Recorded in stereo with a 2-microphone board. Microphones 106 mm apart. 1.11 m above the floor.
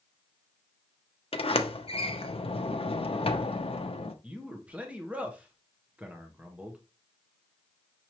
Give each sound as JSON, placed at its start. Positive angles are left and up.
{"t": 1.3, "sound": "a sliding door", "side_deg": 60, "distance_m": 0.6}
{"t": 4.2, "sound": "a man speaking", "side_deg": -15, "distance_m": 0.9}